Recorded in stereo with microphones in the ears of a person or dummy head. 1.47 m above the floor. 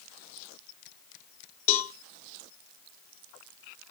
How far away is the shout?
I don't hear a shout.